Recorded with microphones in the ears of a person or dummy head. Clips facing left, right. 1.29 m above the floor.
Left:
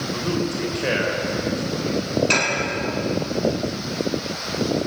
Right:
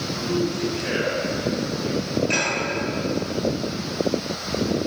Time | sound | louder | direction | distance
0.1 | a man speaking | right 1 dB | 65° left (ahead or behind) | 5.5 m
2.3 | dishes clattering | left 2 dB | 85° left | 8 m